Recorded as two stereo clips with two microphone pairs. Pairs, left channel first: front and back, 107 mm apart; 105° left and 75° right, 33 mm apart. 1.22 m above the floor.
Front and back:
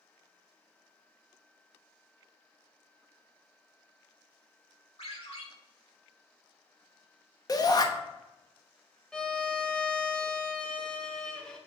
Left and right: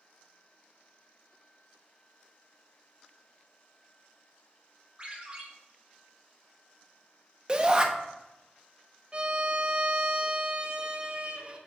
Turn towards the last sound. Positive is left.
turn(degrees=-70)